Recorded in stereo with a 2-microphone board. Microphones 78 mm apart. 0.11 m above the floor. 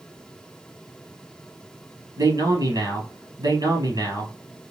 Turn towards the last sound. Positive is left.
turn(degrees=-60)  # may be behind; listen again after turning